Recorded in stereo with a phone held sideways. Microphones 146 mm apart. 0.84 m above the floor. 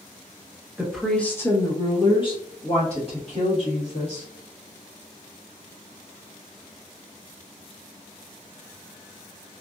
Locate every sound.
0.8 s a woman speaking: 5° right (ahead or behind), 0.7 m; by 4.3 s 50° left (ahead or behind), 2.0 m